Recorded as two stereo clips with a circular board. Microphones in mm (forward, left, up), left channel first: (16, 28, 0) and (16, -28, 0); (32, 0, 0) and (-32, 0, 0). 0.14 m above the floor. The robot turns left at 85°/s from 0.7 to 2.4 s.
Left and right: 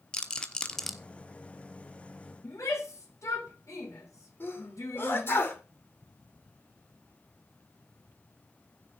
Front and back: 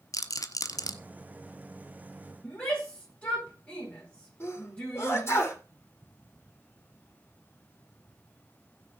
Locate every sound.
0.1 s a rattle: 15° left, 1.0 m; by 0.9 s 5° right, 1.0 m
2.4 s a shout: 70° left, 8.5 m
4.4 s a sneeze: 50° left, 8 m